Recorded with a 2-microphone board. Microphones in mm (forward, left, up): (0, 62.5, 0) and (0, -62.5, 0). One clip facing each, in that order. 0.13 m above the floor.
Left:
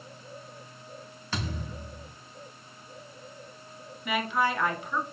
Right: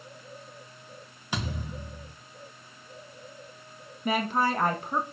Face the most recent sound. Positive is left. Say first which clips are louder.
# right 1 dB
turn(degrees=-40)  # may be behind; listen again after turning